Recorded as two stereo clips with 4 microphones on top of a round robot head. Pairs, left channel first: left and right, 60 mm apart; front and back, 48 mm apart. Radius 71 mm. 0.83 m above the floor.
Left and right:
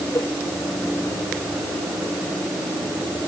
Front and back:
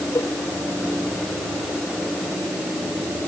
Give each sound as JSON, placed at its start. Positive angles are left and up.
{"t": 0.1, "sound": "a cowbell", "azimuth_deg": 35}